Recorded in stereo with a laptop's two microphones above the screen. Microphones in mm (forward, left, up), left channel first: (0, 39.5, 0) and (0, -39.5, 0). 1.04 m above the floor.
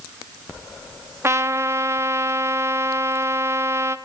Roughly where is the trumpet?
Right.